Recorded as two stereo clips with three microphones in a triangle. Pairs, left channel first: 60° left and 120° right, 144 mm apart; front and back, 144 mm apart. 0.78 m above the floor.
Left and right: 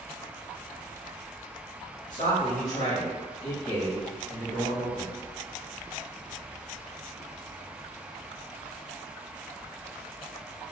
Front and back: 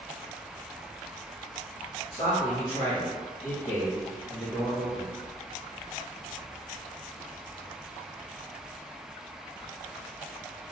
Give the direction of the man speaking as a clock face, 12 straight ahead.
10 o'clock.